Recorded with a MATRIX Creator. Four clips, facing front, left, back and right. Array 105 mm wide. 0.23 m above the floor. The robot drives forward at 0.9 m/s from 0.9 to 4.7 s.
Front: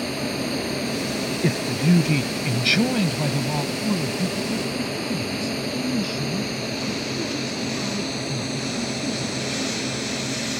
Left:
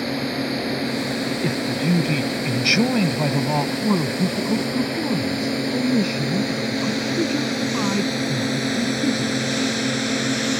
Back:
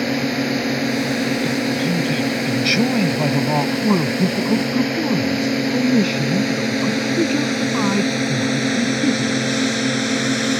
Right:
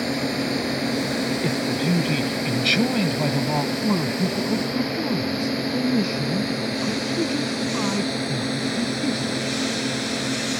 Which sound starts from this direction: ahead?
A man speaking, at 1.4 s.